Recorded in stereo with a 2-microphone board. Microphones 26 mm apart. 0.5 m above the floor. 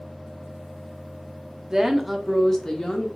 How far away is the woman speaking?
About 0.7 m.